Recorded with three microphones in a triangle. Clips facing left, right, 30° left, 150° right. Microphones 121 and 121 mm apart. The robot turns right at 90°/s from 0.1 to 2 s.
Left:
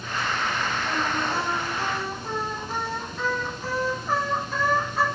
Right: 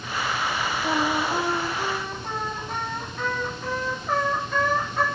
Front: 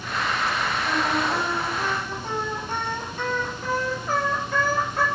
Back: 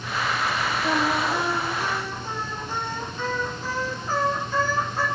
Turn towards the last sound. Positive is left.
turn(degrees=5)